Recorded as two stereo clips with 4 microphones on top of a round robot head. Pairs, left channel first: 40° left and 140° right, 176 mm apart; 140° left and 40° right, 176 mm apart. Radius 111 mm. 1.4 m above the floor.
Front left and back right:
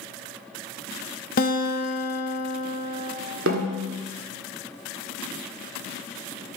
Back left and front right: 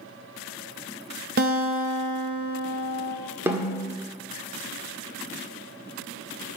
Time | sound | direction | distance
1.4 | a guitar | straight ahead | 0.9 m
3.5 | a snare drum | 120° right | 1.7 m